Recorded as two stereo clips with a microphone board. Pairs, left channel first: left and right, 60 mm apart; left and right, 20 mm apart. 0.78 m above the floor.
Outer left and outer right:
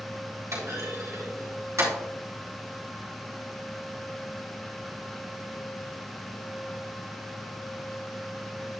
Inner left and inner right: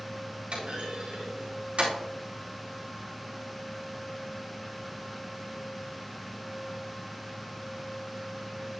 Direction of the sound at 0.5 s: 55° right (ahead or behind).